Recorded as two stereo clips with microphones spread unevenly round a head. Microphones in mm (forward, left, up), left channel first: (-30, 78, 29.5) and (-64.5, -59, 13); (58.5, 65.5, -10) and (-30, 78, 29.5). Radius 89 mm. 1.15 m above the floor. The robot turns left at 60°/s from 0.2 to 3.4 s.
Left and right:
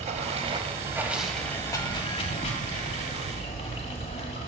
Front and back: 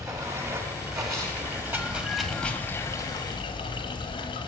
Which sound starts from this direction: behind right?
Running water, at 0.0 s.